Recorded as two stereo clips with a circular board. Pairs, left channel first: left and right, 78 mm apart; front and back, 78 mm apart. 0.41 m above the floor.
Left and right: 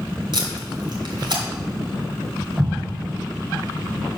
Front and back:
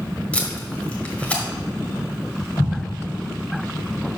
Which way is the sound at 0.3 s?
75° right.